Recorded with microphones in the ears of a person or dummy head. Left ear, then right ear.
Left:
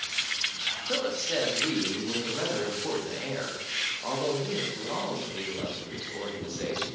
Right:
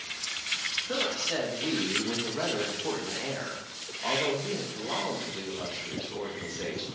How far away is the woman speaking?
About 0.7 m.